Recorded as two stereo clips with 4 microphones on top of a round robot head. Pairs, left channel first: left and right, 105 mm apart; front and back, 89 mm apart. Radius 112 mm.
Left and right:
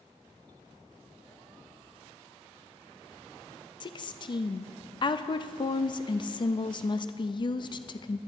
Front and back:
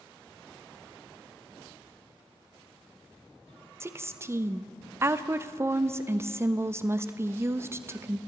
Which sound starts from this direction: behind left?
A woman speaking, at 3.8 s.